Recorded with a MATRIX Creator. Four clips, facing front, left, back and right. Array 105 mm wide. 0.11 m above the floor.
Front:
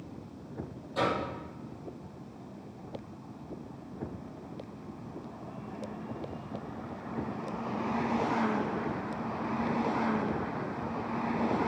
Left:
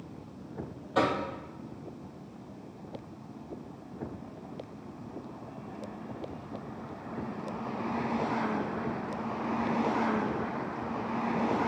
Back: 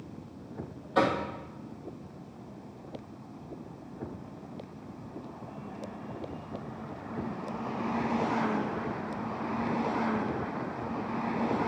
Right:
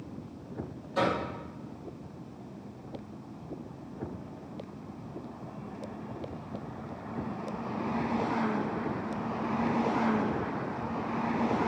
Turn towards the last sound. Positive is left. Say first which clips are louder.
# left 1 dB, back 4 dB
turn(degrees=125)